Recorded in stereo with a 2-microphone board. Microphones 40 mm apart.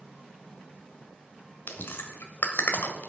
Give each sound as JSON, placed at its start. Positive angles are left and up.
{"t": 1.7, "sound": "chewing", "side_deg": 65, "distance_m": 1.5}